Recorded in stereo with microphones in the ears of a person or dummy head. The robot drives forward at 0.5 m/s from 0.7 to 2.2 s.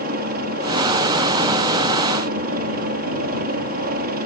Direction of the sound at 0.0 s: 45° right (ahead or behind).